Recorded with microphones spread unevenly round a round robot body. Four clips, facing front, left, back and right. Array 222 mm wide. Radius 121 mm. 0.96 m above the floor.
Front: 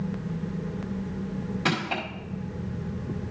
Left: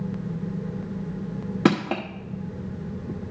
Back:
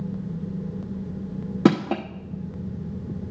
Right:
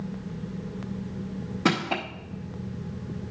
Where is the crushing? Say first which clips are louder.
Left 4 dB, back 10 dB; 155° left, 0.8 m.